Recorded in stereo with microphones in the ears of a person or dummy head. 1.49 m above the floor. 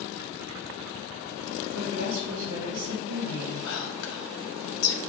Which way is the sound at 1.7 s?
75° right (ahead or behind).